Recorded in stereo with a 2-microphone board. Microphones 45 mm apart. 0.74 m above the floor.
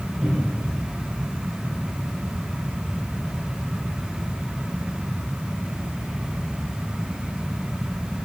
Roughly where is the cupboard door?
Centre.